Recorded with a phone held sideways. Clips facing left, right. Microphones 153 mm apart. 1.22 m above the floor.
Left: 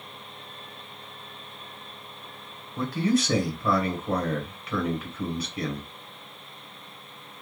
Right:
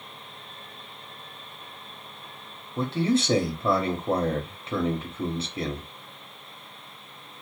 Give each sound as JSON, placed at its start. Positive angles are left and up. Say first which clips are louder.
{"t": 2.8, "sound": "a man speaking", "louder": "even", "side_deg": -25, "distance_m": 0.8}